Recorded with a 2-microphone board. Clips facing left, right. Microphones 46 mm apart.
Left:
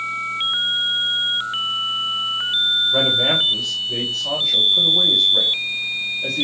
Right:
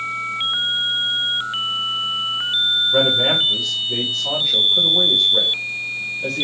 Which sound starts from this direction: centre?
A man speaking, at 2.9 s.